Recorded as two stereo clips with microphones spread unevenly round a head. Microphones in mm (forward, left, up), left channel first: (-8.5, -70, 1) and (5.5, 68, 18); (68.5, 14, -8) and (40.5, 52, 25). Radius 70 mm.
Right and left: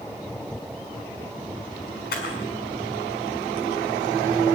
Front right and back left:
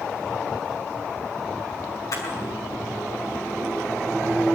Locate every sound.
2.1 s a camera shutter: 70° right, 6 m